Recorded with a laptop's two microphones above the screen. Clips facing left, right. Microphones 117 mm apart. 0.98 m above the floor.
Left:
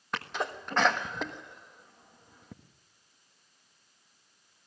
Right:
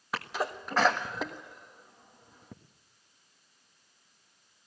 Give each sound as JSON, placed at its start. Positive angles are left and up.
{"t": 0.1, "sound": "a sneeze", "side_deg": -5, "distance_m": 1.4}